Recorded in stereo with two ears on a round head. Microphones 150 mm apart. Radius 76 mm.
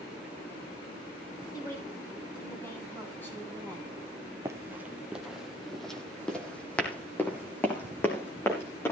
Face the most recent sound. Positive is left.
turn(degrees=15)  # may be behind; listen again after turning